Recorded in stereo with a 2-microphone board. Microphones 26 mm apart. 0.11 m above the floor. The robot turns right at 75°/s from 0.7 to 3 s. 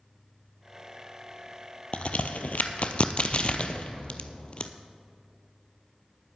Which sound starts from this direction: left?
A crack, at 1.9 s.